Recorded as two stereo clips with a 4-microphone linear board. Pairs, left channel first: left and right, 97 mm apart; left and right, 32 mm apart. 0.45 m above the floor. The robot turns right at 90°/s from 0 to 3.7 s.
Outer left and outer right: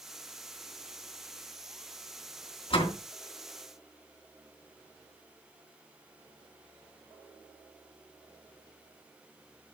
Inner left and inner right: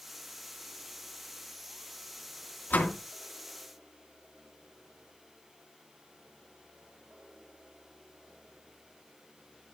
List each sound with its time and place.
2.7 s a door slam: 75° left (ahead or behind), 3.5 m; by 3.0 s 50° left (ahead or behind), 3.5 m